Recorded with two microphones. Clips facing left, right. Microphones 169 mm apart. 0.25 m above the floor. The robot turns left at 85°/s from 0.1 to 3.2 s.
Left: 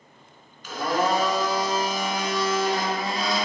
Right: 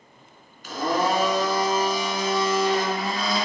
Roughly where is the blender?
Behind right.